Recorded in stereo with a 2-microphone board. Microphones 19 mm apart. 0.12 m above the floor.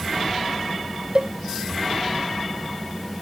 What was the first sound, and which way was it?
A cowbell, 50° right (ahead or behind).